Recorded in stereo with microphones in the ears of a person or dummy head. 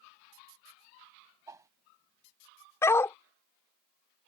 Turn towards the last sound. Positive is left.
turn(degrees=15)  # may be behind; listen again after turning